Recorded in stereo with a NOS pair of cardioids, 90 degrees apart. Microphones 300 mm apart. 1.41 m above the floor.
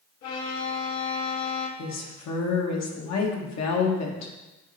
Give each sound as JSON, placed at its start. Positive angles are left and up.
{"t": 0.2, "sound": "a violin", "azimuth_deg": 65, "distance_m": 1.5}
{"t": 1.8, "sound": "a woman speaking", "azimuth_deg": 60, "distance_m": 1.6}